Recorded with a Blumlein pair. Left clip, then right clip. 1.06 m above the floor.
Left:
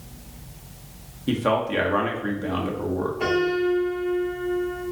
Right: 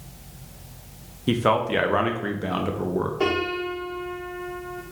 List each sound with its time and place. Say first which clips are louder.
1.3 s a man speaking: right 1 dB; 15° right, 0.7 m
3.2 s a piano: left 4 dB; 60° right, 1.6 m